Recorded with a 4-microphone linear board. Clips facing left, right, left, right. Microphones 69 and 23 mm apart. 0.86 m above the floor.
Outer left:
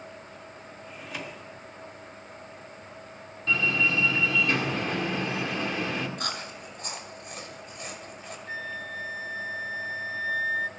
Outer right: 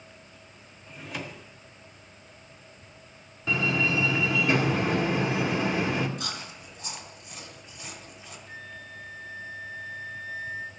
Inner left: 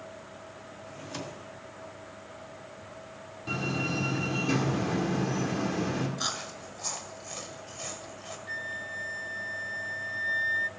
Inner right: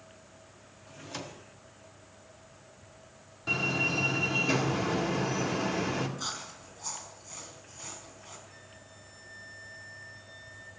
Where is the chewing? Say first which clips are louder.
Outer left 3 dB, inner left 4 dB; 55° left (ahead or behind), 1.9 m.